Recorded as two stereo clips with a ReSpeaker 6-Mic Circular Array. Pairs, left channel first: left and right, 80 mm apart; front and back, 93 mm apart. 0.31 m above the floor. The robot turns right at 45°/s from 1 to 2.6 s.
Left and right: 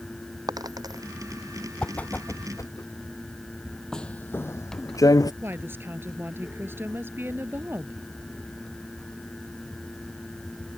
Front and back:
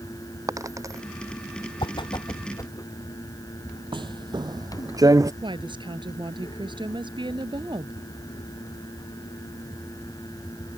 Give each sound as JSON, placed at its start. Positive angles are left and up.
{"t": 0.5, "sound": "a dropped coin", "azimuth_deg": -125}
{"t": 1.8, "sound": "a whoosh", "azimuth_deg": 10}
{"t": 3.9, "sound": "footsteps", "azimuth_deg": 170}
{"t": 5.4, "sound": "a woman speaking", "azimuth_deg": -150}